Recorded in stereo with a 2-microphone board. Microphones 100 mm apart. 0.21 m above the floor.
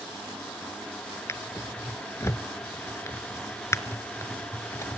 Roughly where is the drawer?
Left.